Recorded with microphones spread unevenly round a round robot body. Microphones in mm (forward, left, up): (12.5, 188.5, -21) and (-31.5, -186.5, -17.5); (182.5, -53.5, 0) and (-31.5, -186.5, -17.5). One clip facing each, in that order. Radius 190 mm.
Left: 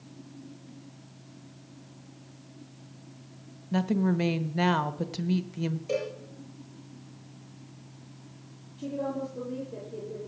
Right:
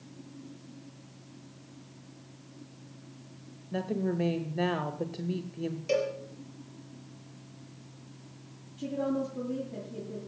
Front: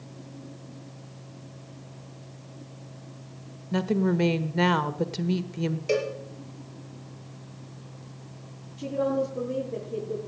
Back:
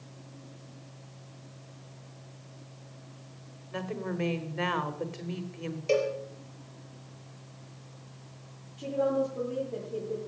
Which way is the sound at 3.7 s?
40° left.